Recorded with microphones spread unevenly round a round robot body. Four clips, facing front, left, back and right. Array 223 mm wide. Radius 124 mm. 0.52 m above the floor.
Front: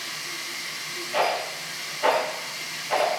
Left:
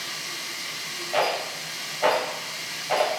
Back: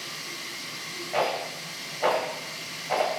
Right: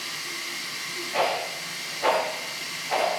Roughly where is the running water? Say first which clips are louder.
Even, front 2 dB; behind.